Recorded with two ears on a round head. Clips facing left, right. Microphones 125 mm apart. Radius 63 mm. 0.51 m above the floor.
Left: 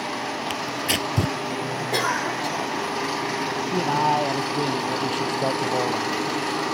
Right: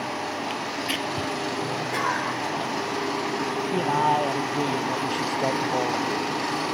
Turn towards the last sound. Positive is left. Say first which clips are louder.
# left 1 dB
turn(degrees=5)  # may be behind; listen again after turning